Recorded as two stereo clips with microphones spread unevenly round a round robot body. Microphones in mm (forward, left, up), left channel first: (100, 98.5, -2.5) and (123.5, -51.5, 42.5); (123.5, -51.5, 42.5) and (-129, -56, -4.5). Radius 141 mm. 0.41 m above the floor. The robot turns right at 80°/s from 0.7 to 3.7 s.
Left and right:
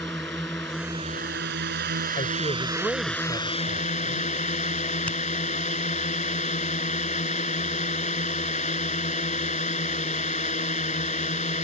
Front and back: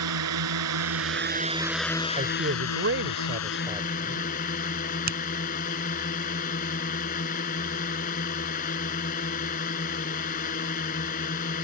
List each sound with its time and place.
0.0 s a drone: 175° right; by 11.6 s 65° left
2.2 s a man speaking: 125° left; by 4.3 s 115° right
5.1 s a finger snap: 160° left